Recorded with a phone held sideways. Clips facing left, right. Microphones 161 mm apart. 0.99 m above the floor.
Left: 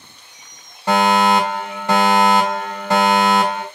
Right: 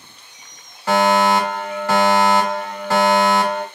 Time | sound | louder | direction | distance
0.9 | a fire alarm | even | 20° left (ahead or behind) | 2 m